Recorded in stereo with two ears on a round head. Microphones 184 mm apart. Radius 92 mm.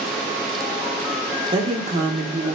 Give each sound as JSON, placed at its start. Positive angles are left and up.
{"t": 1.5, "sound": "a woman speaking", "side_deg": -25, "distance_m": 1.2}